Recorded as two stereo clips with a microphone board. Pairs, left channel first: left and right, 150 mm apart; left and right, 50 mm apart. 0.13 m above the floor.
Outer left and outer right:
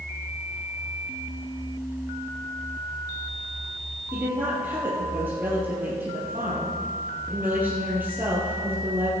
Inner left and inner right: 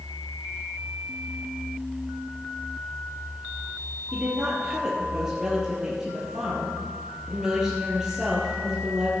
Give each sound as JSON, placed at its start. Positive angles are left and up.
{"t": 4.1, "sound": "a woman speaking", "side_deg": -15, "distance_m": 3.5}